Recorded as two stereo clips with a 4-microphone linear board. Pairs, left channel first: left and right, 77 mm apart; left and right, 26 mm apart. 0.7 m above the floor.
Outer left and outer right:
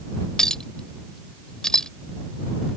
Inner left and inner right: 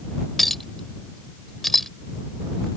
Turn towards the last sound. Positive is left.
turn(degrees=10)  # may be behind; listen again after turning